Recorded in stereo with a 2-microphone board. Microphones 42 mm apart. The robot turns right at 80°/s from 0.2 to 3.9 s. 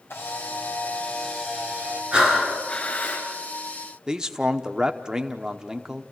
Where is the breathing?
25° right, 4.5 m; by 3.2 s 65° left, 4.5 m.